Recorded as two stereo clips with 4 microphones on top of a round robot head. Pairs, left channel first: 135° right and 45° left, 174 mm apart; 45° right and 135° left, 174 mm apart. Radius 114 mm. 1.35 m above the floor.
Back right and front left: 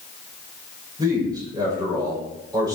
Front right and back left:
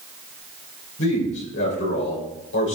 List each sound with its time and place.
1.0 s a man speaking: 25° right, 5 m